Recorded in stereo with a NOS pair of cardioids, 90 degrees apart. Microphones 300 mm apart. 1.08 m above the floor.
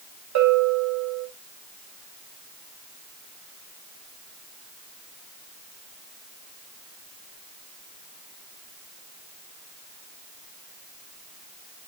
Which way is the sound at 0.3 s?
65° right.